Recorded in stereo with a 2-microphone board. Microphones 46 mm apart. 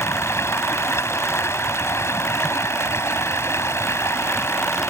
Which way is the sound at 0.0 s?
65° left (ahead or behind).